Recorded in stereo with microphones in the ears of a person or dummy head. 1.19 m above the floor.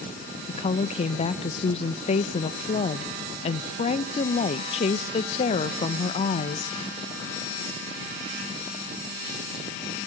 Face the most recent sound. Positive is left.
turn(degrees=35)  # may be behind; listen again after turning